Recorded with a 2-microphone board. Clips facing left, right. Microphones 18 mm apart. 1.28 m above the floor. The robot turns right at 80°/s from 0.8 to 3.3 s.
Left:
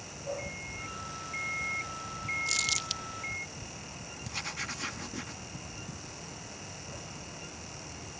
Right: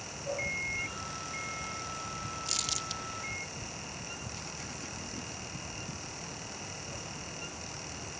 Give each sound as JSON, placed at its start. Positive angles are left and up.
{"t": 0.4, "sound": "an alarm clock", "azimuth_deg": -30}
{"t": 2.5, "sound": "crumpling", "side_deg": 0}
{"t": 4.2, "sound": "writing", "side_deg": 60}